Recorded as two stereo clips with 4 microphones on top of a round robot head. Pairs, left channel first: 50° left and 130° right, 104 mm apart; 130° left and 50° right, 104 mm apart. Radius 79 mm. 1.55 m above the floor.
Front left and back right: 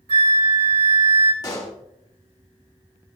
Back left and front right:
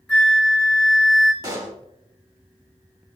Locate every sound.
0.1 s a flute: 145° right, 2.5 m
1.4 s a pop: straight ahead, 2.5 m